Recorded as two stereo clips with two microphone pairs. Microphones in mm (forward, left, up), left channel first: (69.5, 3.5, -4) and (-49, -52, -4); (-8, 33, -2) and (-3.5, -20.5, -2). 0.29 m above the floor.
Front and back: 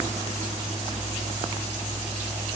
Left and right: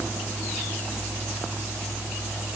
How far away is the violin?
No violin in this recording.